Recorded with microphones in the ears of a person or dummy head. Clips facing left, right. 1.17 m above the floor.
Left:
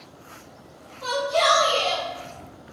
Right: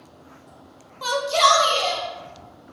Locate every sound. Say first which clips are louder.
1.0 s a shout: even; 70° right (ahead or behind), 0.6 m; by 2.0 s 45° right (ahead or behind), 1.4 m